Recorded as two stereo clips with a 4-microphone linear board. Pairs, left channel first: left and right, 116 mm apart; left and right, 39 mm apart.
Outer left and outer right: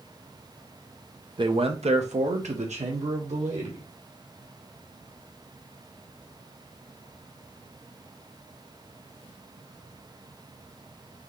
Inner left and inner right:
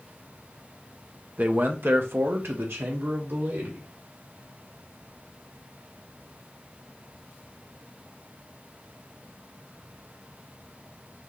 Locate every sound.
1.4 s a man speaking: 45° right (ahead or behind), 0.8 m; by 3.8 s 75° right (ahead or behind), 2 m